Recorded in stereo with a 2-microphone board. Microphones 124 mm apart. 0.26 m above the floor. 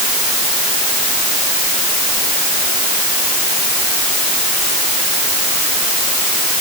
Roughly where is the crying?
No crying in this recording.